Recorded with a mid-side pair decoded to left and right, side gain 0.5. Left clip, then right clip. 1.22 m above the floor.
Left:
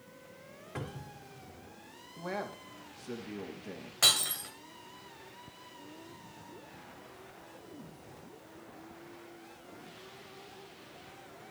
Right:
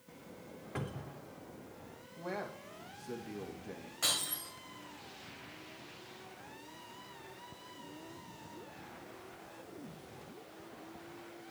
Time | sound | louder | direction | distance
0.8 | a cupboard door | even | 5° right | 4 m
2.2 | a man speaking | left 3 dB | 25° left | 3 m
4.0 | breaking glass | left 8 dB | 60° left | 2.5 m